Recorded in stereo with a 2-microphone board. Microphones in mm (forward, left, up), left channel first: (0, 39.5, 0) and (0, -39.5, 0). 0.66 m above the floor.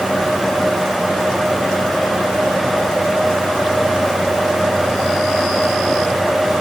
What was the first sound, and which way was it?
Only background noise.